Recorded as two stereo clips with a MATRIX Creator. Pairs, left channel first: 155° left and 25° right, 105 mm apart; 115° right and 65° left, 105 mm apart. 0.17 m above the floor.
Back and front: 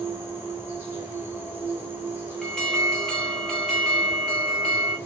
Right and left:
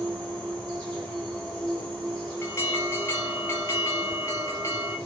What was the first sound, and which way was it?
An insect, 45° right.